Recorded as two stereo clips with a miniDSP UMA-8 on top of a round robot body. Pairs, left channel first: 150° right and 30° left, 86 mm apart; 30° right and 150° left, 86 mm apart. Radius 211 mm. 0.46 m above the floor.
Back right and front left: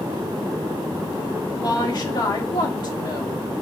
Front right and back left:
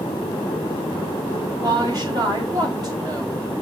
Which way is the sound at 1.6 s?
175° right.